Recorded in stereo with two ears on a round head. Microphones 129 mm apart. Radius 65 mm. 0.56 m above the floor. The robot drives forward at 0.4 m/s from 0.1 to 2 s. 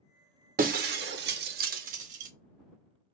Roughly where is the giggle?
I don't hear a giggle.